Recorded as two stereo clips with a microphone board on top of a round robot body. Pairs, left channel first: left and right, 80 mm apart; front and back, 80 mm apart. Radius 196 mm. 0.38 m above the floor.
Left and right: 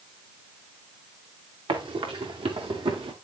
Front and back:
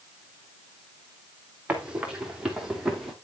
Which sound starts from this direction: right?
Running footsteps, at 1.7 s.